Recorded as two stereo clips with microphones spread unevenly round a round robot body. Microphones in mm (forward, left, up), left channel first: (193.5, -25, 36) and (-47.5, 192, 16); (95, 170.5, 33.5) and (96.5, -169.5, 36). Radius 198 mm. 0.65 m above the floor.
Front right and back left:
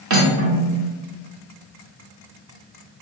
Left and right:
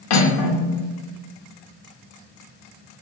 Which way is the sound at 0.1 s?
95° left.